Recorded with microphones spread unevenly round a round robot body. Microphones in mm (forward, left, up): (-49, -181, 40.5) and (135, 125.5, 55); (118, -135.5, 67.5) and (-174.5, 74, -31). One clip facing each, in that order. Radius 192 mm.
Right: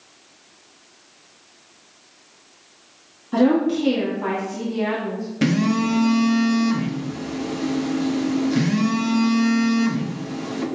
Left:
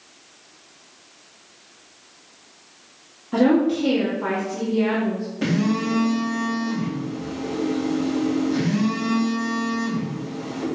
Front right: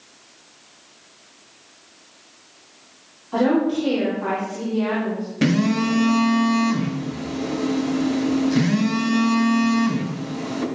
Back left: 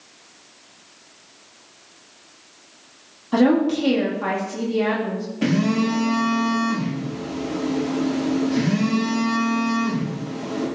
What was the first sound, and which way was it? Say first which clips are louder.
A woman speaking: even, back left 2 dB; 155° left.